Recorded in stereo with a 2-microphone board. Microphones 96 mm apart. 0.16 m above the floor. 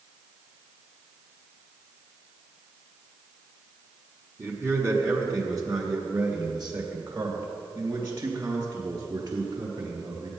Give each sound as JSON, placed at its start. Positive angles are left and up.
{"t": 4.4, "sound": "a man speaking", "side_deg": -25, "distance_m": 1.9}